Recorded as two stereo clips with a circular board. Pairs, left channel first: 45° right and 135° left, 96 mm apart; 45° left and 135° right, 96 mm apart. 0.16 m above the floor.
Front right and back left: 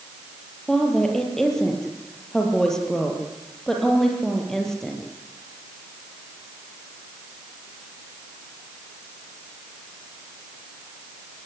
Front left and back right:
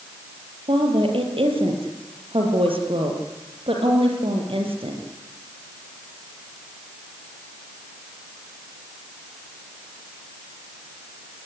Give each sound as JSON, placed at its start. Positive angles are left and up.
{"t": 0.7, "sound": "a woman speaking", "azimuth_deg": -130, "distance_m": 5.0}